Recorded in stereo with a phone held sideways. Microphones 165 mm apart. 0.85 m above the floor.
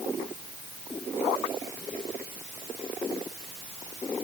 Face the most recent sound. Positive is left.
No sound to turn to.